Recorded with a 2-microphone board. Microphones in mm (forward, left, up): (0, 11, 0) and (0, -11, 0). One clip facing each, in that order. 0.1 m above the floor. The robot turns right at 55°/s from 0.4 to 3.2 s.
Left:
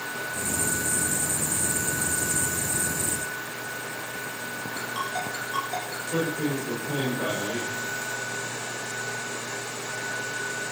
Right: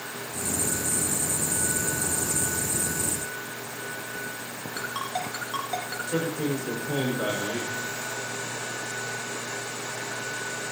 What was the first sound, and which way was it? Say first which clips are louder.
A ringtone: even; 20° right (ahead or behind).